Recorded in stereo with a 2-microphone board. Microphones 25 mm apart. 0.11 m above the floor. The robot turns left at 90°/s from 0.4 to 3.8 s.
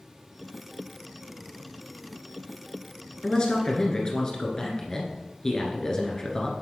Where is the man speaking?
115° left, 1.5 m; by 6.6 s 60° left, 1.5 m.